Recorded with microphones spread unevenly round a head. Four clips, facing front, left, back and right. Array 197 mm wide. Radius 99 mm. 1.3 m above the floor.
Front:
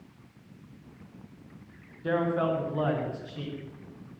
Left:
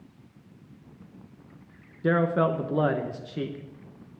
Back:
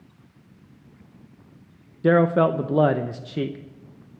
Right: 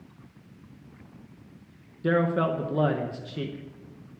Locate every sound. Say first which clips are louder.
2.0 s a man speaking: left 1 dB, back 9 dB; 175° left, 0.8 m